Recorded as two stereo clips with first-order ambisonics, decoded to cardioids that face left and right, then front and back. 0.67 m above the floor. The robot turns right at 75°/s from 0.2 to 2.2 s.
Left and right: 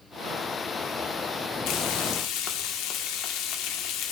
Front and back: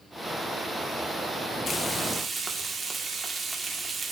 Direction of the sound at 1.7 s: 65° left.